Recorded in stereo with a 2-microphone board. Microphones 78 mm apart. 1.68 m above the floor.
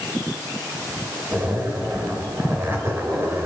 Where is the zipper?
30° right (ahead or behind), 3.5 m.